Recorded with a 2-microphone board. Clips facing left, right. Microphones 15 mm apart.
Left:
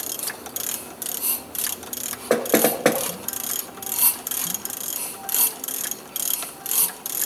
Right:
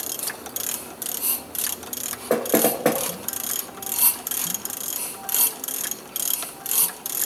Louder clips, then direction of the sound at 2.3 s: Left 1 dB; 35° left (ahead or behind).